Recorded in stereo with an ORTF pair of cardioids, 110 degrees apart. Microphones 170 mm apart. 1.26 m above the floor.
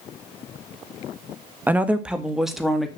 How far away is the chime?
No chime in this recording.